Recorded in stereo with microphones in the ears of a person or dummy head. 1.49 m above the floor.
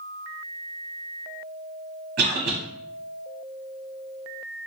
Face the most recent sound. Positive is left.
turn(degrees=-50)  # may be behind; listen again after turning